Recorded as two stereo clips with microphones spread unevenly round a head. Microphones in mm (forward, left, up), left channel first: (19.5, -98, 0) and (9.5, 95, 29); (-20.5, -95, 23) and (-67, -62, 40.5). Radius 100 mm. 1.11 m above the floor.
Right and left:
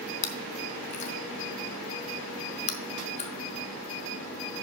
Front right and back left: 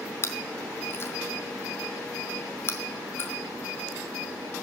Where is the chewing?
65° right, 0.8 m.